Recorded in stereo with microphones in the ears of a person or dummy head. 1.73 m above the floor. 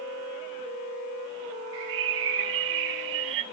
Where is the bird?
80° right, 1.4 m.